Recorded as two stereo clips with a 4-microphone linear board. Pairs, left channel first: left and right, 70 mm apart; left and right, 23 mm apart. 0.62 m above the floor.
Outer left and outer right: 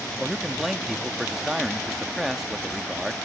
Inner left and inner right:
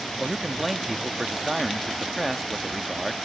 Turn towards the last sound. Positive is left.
turn(degrees=-5)  # may be behind; listen again after turning